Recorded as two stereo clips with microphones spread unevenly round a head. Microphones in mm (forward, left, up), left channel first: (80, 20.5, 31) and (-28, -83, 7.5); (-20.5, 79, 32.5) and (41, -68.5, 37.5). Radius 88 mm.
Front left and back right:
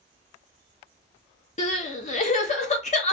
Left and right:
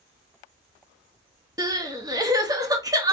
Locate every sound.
1.6 s crying: straight ahead, 1.1 m